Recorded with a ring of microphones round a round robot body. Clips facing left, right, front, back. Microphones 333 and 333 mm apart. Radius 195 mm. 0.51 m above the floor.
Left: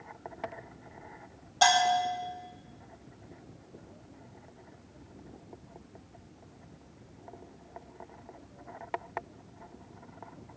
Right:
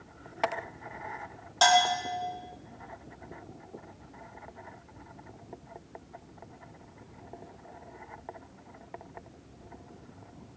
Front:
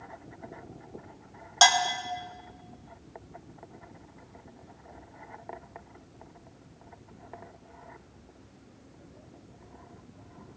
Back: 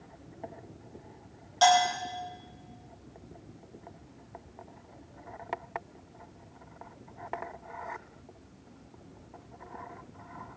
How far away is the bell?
About 2.5 m.